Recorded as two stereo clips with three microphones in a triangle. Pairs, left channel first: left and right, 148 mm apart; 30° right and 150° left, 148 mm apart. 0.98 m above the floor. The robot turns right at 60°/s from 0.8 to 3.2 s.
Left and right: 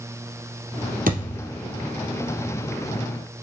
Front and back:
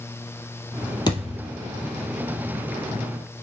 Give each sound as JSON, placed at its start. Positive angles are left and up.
{"t": 1.1, "sound": "a thud", "azimuth_deg": -90, "distance_m": 3.0}